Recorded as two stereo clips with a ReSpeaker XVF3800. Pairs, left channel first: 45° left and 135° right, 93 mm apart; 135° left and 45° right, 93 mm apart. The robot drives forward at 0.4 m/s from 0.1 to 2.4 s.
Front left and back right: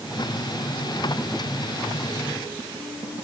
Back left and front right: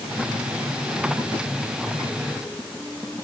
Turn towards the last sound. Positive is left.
No sound to turn to.